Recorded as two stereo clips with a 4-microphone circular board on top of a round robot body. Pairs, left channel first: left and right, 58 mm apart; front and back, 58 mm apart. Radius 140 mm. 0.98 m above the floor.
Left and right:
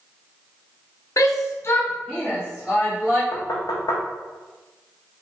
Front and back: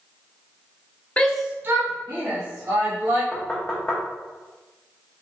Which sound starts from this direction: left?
Knocking, at 3.3 s.